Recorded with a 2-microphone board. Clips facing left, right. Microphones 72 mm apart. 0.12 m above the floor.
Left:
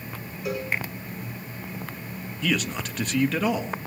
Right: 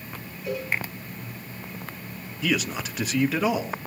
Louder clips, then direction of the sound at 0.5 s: Even; 75° left (ahead or behind).